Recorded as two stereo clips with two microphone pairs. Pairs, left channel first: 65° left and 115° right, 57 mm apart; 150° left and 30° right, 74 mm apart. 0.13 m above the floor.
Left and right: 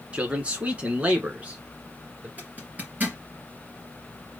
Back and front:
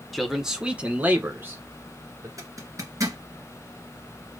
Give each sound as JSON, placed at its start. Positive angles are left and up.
{"t": 0.1, "sound": "a man speaking", "azimuth_deg": -120, "distance_m": 1.3}
{"t": 2.4, "sound": "a zipper", "azimuth_deg": -60, "distance_m": 3.0}